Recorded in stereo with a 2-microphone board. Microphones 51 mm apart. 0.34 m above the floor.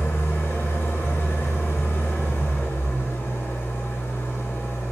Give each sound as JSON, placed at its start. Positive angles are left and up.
{"t": 0.0, "sound": "an engine running", "side_deg": 60, "distance_m": 1.3}